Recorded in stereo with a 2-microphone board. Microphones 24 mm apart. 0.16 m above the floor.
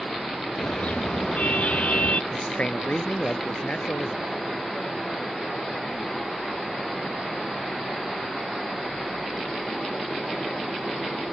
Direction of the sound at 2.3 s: 60° left (ahead or behind).